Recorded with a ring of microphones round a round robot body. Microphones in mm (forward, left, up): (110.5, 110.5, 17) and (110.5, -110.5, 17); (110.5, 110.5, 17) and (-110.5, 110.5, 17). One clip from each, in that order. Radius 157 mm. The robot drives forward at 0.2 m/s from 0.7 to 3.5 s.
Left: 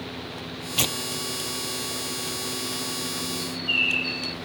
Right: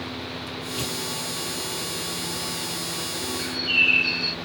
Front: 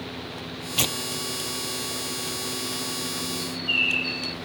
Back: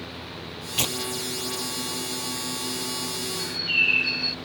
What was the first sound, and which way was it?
Tearing paper, 90° left.